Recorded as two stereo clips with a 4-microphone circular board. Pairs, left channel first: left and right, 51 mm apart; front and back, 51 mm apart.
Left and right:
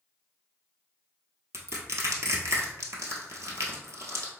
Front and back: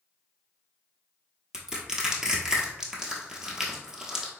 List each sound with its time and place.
1.5 s crushing: 105° right, 0.9 m